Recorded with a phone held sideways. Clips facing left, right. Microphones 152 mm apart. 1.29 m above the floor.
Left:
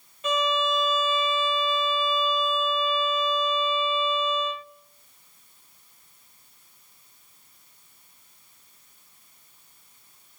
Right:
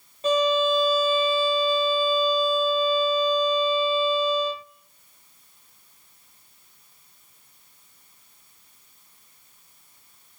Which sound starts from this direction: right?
A violin, at 0.2 s.